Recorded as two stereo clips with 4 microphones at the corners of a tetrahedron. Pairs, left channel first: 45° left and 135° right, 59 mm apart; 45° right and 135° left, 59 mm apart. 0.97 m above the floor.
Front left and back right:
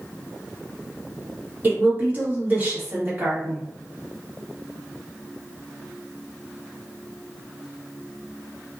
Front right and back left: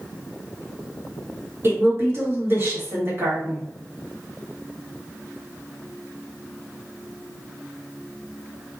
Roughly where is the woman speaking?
Behind.